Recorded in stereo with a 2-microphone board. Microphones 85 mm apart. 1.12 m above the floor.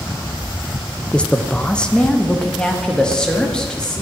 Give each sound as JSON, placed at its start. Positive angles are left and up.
{"t": 1.1, "sound": "a man speaking", "side_deg": 10, "distance_m": 0.6}